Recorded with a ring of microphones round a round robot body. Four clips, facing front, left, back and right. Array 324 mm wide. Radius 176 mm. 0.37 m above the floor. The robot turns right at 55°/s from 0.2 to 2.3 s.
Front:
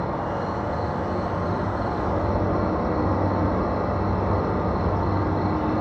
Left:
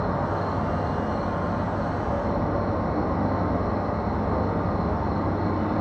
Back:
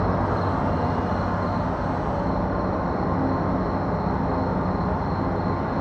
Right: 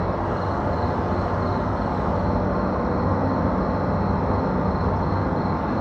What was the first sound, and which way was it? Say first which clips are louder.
An insect: right 1 dB, back 3 dB; 160° right.